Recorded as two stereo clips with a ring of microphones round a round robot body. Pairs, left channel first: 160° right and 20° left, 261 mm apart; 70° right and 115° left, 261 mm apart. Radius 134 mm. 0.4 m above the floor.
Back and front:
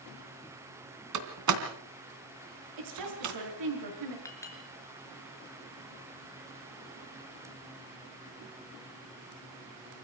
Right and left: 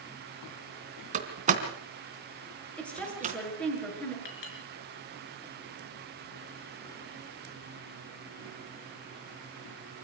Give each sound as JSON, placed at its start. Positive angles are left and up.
{"t": 1.1, "sound": "a door slam", "azimuth_deg": 45, "distance_m": 3.0}
{"t": 2.8, "sound": "a woman speaking", "azimuth_deg": 20, "distance_m": 6.5}
{"t": 4.2, "sound": "a clink", "azimuth_deg": -75, "distance_m": 4.5}